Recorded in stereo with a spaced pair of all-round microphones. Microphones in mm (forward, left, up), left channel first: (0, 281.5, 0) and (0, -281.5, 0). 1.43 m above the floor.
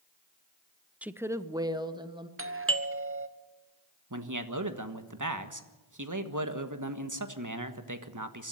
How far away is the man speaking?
About 1.5 m.